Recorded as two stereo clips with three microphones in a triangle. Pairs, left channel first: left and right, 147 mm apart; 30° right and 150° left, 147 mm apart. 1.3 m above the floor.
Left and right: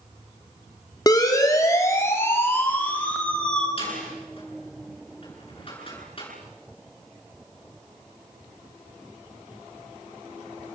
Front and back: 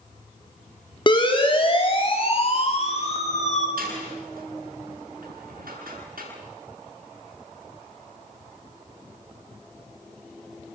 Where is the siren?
25° left, 4.5 m; by 3.7 s 5° left, 4.5 m.